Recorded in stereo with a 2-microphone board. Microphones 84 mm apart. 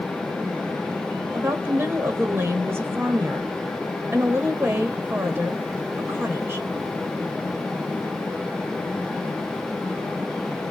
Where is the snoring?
I don't hear snoring.